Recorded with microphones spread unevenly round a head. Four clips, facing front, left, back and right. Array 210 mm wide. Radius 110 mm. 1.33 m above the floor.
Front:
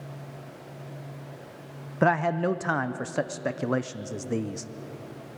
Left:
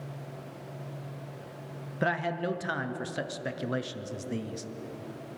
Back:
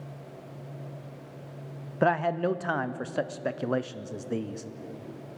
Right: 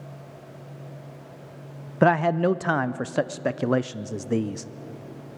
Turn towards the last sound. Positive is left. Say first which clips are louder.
# right 10 dB, front 1 dB
turn(degrees=-50)